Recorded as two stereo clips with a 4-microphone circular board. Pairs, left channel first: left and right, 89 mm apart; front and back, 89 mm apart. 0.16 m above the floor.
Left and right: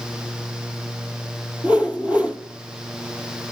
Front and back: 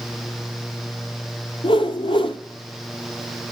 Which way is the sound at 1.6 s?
15° right.